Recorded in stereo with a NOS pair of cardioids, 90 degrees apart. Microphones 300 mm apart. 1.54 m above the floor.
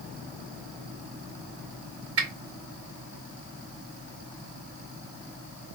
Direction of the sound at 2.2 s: 50° right.